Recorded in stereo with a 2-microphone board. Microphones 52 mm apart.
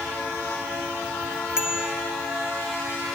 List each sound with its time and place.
1.6 s a bicycle bell: 10° right (ahead or behind)